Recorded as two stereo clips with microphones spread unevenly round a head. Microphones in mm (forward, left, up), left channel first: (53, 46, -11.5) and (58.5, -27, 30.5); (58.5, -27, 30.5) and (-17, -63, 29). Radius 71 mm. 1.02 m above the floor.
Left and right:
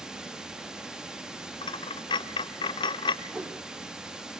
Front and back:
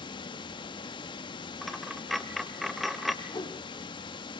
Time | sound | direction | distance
0.0 | running water | straight ahead | 1.5 m
1.6 | a dropped coin | 115° left | 0.8 m
3.2 | a whoosh | 15° right | 3 m